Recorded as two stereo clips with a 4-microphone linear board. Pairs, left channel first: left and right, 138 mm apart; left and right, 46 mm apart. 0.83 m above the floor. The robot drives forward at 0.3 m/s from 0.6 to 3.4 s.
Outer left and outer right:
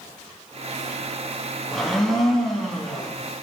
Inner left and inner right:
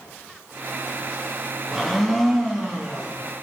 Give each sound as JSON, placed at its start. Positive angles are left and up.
{"t": 1.7, "sound": "a blender", "side_deg": 0, "distance_m": 0.5}